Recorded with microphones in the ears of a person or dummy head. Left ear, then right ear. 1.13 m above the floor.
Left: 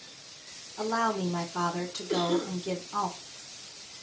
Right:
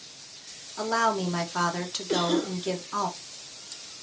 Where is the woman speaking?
35° right (ahead or behind), 0.5 m.